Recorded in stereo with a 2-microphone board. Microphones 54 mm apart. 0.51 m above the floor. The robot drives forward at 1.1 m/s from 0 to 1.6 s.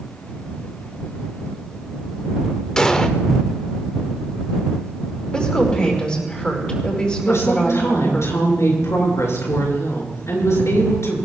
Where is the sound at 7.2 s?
65° left (ahead or behind), 6.5 m.